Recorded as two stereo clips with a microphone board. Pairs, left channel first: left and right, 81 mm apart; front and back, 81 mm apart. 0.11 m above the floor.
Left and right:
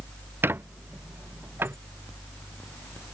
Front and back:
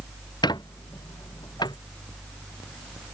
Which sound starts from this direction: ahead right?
A squeak, at 0.4 s.